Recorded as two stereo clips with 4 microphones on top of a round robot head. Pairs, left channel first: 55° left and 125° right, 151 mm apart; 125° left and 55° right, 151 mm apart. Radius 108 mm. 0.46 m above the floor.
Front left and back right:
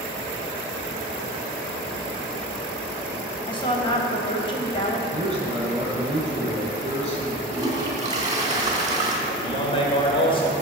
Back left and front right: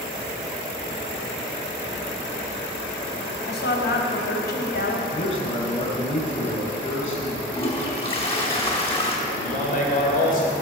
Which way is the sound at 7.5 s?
175° left.